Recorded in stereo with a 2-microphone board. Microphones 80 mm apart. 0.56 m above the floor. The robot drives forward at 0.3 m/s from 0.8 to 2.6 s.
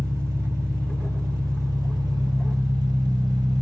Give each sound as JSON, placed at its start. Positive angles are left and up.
{"t": 0.0, "sound": "an engine running", "side_deg": -40, "distance_m": 0.9}